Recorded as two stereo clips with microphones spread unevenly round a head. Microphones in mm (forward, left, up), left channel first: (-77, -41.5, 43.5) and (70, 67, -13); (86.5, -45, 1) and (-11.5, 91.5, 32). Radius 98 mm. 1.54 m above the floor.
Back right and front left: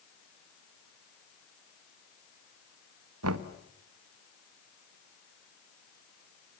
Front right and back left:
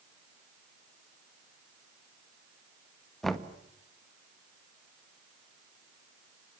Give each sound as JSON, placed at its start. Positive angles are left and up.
{"t": 3.2, "sound": "knocking", "azimuth_deg": 40, "distance_m": 1.7}